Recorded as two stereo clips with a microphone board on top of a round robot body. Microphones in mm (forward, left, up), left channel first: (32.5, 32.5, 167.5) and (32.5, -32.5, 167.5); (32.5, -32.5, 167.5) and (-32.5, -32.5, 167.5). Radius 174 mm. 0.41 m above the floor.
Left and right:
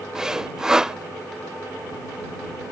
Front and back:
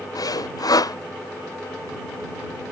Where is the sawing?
10° right.